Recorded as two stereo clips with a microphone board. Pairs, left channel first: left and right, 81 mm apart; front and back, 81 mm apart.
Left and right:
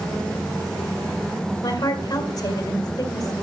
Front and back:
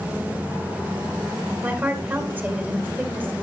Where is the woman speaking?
115° left, 2.5 m.